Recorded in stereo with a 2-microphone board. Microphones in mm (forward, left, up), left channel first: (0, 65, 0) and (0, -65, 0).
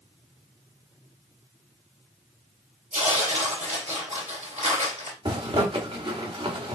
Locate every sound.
2.9 s tearing paper: 60° right (ahead or behind), 3 m
5.2 s a zipper: 40° right (ahead or behind), 1.7 m